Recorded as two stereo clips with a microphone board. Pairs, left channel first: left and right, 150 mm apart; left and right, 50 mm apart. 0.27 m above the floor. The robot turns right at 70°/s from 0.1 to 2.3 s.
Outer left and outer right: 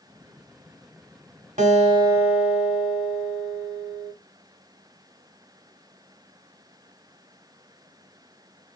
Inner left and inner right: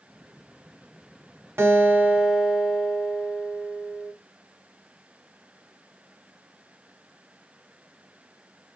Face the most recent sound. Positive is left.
turn(degrees=-15)